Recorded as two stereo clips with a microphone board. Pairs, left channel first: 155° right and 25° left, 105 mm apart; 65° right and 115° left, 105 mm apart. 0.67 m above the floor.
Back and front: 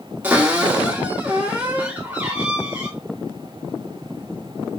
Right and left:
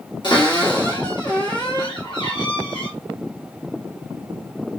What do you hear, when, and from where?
0.2 s a cupboard door: 45° right, 1.9 m